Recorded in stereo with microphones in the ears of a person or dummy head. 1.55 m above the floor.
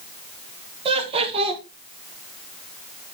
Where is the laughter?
30° right (ahead or behind), 2.5 m.